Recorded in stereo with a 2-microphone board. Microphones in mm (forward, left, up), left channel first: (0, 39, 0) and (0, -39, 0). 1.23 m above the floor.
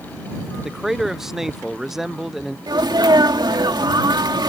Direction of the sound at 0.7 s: 5° right (ahead or behind).